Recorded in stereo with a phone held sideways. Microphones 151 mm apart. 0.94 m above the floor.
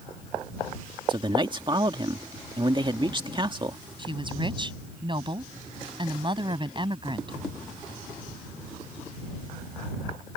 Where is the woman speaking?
35° right (ahead or behind).